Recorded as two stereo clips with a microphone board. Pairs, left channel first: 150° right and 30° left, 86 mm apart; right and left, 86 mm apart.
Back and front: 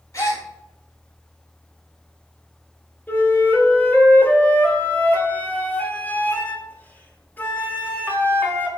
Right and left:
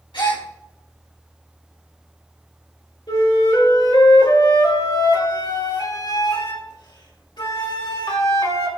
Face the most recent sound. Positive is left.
turn(degrees=-90)